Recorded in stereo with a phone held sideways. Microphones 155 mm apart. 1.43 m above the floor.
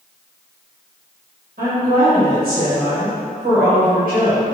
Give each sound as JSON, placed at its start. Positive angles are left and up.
{"t": 1.6, "sound": "a woman speaking", "side_deg": -70, "distance_m": 1.7}